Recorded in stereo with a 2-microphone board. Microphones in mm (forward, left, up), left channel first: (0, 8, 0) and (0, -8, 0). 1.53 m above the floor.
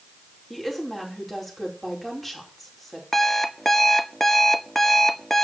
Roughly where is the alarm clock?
Centre.